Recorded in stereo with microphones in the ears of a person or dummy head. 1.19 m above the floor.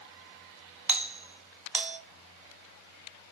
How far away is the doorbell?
About 0.8 m.